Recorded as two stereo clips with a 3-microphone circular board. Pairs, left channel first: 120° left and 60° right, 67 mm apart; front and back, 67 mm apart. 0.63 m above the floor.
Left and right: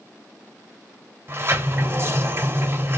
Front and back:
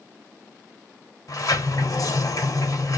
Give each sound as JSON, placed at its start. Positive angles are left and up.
{"t": 1.3, "sound": "a sliding door", "azimuth_deg": -15, "distance_m": 1.3}